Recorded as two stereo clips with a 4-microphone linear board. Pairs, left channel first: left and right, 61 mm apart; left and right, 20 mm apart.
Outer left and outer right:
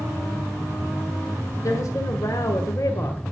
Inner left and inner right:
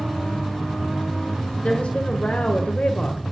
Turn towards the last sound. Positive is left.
turn(degrees=65)  # may be behind; listen again after turning